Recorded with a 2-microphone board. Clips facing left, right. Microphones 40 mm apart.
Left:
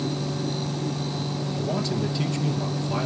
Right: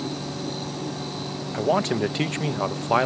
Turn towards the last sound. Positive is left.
turn(degrees=-50)  # may be behind; listen again after turning